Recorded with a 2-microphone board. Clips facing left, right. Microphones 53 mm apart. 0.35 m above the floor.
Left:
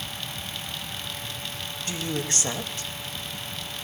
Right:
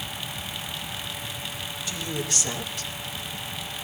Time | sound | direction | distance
1.9 | a woman speaking | 50° left (ahead or behind) | 2 m